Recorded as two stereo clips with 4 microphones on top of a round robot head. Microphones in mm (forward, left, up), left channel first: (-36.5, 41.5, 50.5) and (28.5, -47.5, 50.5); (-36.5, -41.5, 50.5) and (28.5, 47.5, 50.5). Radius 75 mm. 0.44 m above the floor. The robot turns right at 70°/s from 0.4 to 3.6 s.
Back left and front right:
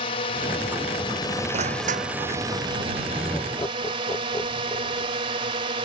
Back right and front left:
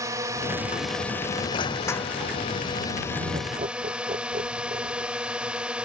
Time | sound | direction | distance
0.0 | a drone | 110° left | ?
1.5 | crushing | 85° right | ?
3.1 | laughter | 35° left | ?